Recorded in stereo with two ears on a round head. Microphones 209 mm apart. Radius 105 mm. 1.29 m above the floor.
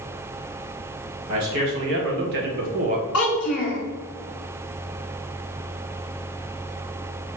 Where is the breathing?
No breathing in this recording.